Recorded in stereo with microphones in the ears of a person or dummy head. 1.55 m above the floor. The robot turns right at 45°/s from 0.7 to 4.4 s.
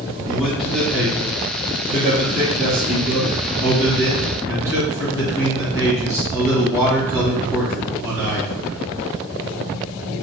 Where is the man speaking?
175° left, 1.5 m; by 8.9 s 20° right, 1.5 m.